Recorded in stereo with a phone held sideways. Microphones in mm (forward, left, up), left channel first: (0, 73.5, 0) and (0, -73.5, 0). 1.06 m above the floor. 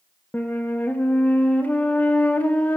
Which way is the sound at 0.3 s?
10° left (ahead or behind).